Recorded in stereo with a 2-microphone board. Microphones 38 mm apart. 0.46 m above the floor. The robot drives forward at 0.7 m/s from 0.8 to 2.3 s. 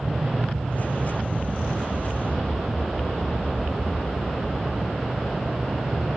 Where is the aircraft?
55° right (ahead or behind).